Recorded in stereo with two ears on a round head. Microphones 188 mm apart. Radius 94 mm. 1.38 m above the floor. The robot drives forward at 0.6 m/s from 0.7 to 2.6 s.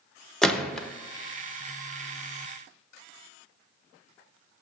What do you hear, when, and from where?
0.4 s a gunshot: 5° left (ahead or behind), 0.6 m